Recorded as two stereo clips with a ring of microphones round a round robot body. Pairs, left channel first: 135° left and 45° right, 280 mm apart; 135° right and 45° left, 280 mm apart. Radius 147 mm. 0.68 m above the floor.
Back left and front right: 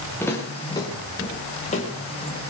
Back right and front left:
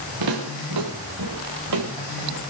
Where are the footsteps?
55° left, 5 m; by 2.4 s 75° left, 4.5 m.